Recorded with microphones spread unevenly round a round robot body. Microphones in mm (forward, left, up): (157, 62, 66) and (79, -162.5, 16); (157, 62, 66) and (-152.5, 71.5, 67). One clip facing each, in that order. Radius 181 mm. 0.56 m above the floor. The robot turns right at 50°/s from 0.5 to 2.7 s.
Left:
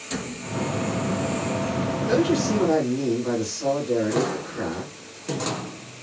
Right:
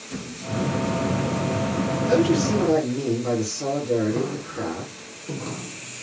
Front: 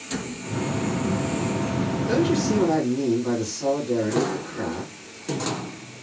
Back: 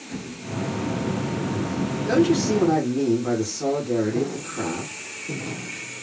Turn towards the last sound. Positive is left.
turn(degrees=-140)